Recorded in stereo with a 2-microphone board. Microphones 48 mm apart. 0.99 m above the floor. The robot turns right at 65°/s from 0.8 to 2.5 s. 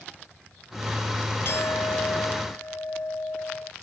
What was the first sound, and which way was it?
A clink, 55° left.